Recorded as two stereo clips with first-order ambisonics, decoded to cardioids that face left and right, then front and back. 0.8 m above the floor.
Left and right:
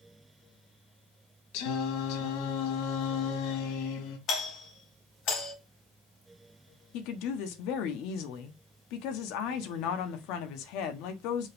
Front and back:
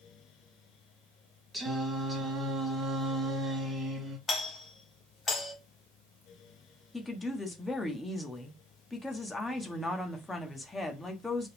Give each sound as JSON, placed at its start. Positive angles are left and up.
{"t": 1.5, "sound": "singing", "azimuth_deg": 100, "distance_m": 1.7}
{"t": 4.3, "sound": "a doorbell", "azimuth_deg": 65, "distance_m": 2.0}
{"t": 6.9, "sound": "a woman speaking", "azimuth_deg": 80, "distance_m": 1.3}